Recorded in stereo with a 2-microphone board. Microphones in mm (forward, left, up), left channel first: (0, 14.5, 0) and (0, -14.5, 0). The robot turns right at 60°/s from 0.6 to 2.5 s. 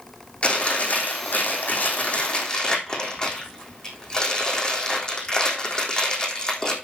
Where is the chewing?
40° left, 3.5 m; by 6.7 s 155° left, 3.5 m.